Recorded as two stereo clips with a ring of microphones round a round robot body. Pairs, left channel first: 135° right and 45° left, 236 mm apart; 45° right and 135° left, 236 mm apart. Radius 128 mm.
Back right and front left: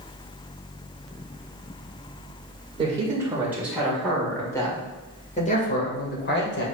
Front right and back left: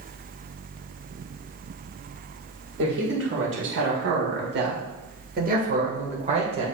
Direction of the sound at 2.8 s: 110° left.